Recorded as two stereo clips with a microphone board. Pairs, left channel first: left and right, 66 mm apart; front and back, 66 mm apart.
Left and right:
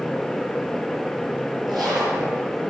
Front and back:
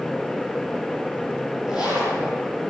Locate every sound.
1.7 s a zipper: straight ahead, 4.5 m